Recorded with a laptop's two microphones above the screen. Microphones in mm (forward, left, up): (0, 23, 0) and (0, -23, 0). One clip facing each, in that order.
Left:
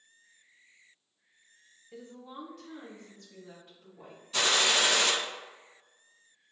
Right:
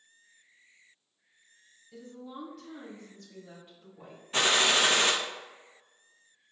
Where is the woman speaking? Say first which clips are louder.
Right 1 dB; 35° left (ahead or behind), 0.5 m; by 4.2 s 20° right (ahead or behind), 3 m.